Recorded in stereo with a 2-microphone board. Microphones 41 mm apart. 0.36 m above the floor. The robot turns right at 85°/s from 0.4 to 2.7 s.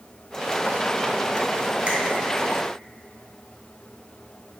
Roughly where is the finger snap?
Right.